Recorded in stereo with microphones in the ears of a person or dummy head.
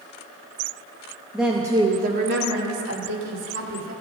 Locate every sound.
1.3 s a woman speaking: centre (ahead or behind), 1.4 m; by 3.9 s 75° right (ahead or behind), 2.5 m